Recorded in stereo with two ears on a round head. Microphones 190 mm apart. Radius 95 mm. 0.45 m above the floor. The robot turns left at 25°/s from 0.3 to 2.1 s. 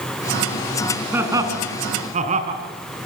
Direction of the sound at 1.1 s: 10° right (ahead or behind).